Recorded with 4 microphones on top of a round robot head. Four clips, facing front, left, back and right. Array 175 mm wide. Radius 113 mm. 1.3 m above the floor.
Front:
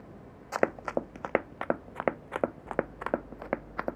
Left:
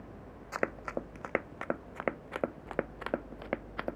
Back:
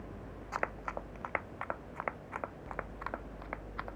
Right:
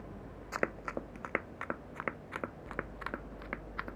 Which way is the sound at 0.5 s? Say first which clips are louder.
Left 2 dB, front 9 dB; straight ahead.